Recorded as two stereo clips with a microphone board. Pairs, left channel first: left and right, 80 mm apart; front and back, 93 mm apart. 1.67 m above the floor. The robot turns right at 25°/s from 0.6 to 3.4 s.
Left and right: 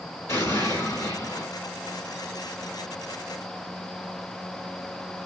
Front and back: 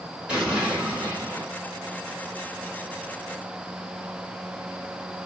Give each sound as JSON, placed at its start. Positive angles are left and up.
{"t": 0.3, "sound": "an explosion", "azimuth_deg": 105, "distance_m": 1.4}